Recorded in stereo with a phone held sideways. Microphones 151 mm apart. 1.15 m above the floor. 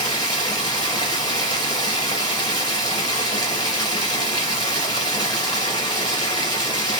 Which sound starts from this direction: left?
Running water, at 0.0 s.